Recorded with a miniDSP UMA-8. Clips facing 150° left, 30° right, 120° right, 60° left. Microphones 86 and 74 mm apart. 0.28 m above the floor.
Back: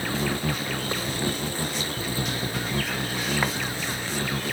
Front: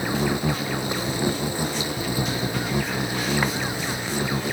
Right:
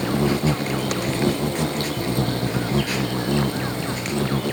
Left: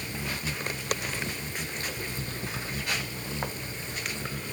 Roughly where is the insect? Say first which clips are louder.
Front 4 dB, right 15 dB; right.